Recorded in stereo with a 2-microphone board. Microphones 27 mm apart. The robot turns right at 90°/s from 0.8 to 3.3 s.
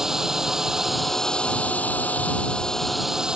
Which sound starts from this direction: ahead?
A drone, at 0.0 s.